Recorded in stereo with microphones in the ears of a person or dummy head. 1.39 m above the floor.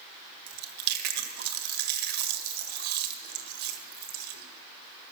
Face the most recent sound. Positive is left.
turn(degrees=-65)  # may be behind; listen again after turning